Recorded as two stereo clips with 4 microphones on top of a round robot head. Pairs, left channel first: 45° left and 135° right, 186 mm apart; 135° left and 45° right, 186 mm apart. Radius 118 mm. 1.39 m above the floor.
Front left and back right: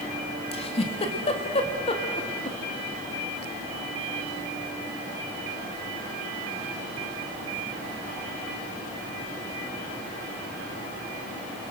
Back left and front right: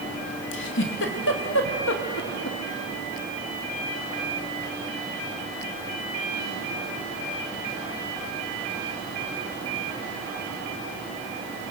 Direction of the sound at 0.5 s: 105° left.